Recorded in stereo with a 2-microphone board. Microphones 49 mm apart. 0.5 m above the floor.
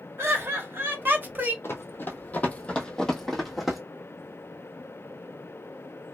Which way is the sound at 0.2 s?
55° right (ahead or behind).